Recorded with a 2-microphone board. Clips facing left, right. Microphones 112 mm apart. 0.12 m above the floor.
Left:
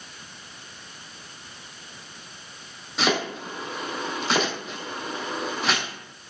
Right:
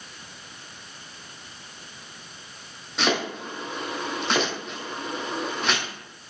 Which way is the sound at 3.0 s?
5° left (ahead or behind).